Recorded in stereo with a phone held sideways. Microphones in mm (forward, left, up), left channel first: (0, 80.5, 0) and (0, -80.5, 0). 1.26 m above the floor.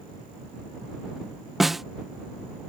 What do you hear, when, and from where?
1.6 s a snare drum: centre (ahead or behind)